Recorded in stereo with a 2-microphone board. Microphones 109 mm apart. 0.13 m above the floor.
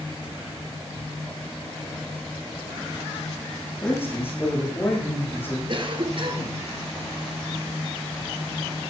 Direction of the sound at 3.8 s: 20° left (ahead or behind).